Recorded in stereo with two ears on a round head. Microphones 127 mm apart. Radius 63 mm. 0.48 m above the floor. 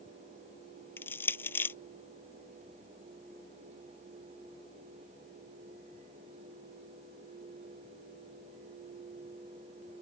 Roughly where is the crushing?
Centre.